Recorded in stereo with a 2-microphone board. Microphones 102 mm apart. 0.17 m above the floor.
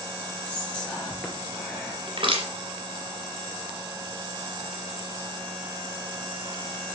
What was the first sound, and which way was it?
Whispering, 10° left (ahead or behind).